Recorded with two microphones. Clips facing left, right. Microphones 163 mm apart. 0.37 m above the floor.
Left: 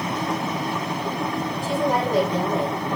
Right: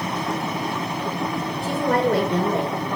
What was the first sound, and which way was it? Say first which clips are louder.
A woman speaking: right 2 dB; 80° right.